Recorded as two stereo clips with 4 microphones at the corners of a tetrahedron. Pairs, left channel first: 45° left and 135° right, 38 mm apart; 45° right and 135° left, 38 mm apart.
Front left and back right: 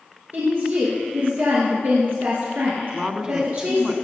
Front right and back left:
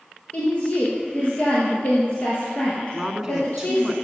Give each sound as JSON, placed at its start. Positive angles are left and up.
{"t": 0.3, "sound": "a woman speaking", "azimuth_deg": -100, "distance_m": 2.5}
{"t": 2.9, "sound": "a woman speaking", "azimuth_deg": -170, "distance_m": 1.1}